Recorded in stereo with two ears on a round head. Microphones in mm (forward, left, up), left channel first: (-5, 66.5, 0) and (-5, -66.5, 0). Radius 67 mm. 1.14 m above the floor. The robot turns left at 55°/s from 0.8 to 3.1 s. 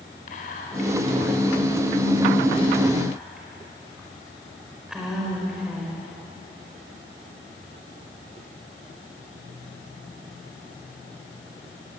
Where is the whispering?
55° left (ahead or behind), 4.5 m; by 6.0 s 5° right (ahead or behind), 4.5 m.